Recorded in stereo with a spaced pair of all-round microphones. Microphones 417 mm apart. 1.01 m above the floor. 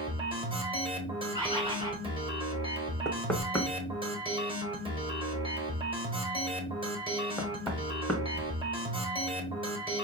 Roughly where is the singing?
No singing in this recording.